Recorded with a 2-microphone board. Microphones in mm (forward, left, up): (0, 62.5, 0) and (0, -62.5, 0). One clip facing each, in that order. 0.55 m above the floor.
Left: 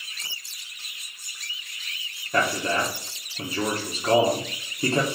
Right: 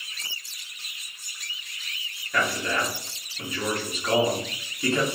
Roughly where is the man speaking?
Left.